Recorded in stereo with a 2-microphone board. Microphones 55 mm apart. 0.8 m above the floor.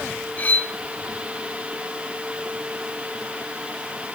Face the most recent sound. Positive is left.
turn(degrees=30)  # may be behind; listen again after turning